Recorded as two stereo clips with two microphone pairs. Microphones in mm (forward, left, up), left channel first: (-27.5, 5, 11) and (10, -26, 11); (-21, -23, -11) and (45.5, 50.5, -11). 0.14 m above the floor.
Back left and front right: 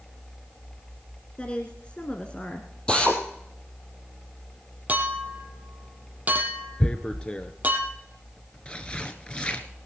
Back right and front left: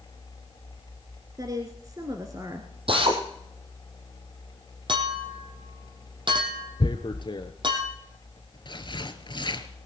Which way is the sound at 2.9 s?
70° left.